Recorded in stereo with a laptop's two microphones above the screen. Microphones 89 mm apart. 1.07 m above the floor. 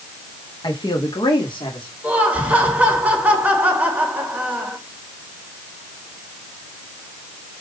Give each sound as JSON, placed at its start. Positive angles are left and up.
{"t": 0.6, "sound": "a man speaking", "side_deg": 60, "distance_m": 2.0}
{"t": 2.0, "sound": "laughter", "side_deg": -15, "distance_m": 3.5}